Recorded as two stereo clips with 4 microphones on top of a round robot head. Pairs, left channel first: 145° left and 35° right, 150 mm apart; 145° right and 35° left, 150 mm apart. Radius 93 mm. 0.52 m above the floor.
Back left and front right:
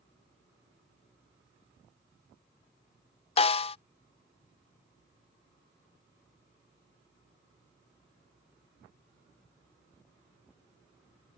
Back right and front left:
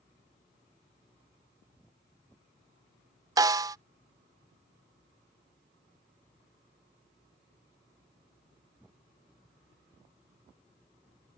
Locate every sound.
3.4 s a snare drum: 100° left